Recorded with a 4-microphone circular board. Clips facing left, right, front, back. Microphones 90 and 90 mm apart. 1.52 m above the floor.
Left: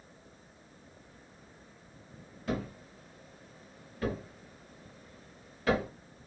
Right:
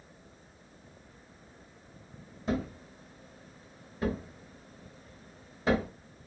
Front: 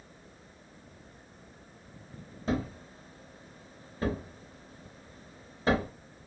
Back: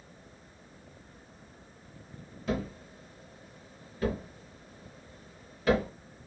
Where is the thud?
35° right, 1.1 m.